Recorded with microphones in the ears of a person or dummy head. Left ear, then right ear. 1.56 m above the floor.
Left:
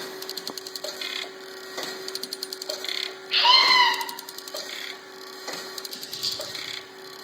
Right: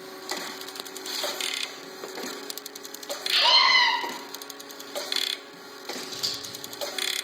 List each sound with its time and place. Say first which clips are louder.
3.3 s a scream: left 2 dB; 85° right, 8 m
5.9 s scissors: right 1 dB; 85° right, 7 m